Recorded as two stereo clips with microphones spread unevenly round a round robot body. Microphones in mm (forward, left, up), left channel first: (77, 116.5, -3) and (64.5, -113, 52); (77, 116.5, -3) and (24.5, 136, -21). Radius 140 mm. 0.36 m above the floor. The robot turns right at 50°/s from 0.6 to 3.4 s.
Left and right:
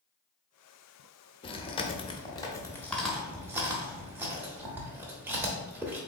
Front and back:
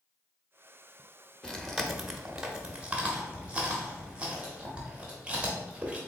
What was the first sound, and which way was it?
Chewing, 75° left.